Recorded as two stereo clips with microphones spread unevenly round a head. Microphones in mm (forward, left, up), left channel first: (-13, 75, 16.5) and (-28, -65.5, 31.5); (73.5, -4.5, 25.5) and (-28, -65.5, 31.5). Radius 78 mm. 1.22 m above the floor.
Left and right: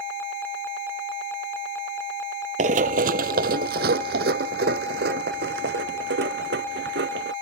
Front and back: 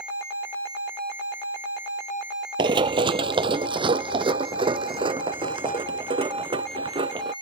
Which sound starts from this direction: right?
Running footsteps, at 2.6 s.